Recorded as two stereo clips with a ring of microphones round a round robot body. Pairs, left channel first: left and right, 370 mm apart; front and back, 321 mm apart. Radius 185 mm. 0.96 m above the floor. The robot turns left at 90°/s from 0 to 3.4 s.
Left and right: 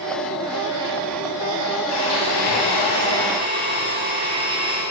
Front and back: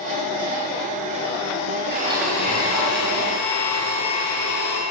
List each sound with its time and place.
1.9 s a blender: 120° left, 7.5 m; by 4.8 s 15° right, 7.5 m